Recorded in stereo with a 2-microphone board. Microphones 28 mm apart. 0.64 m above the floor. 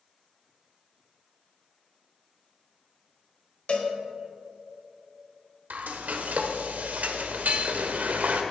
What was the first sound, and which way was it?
A cowbell, 40° left (ahead or behind).